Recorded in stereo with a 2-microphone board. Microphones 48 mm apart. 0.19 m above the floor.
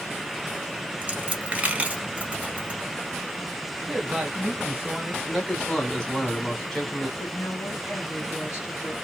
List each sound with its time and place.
1.0 s a dropped coin: 25° right (ahead or behind), 0.8 m
3.9 s a man speaking: 20° right (ahead or behind), 1.0 m
5.3 s a man speaking: 15° left (ahead or behind), 1.3 m
7.2 s a woman speaking: 45° left (ahead or behind), 2 m